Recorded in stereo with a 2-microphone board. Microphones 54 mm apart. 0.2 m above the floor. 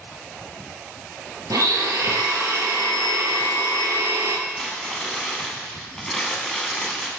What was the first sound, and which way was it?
A blender, 85° right.